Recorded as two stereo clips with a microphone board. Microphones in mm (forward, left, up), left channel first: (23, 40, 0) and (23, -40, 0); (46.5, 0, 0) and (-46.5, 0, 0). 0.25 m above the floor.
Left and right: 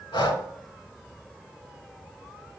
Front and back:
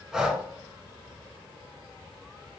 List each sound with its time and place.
0.1 s breathing: 95° left, 0.7 m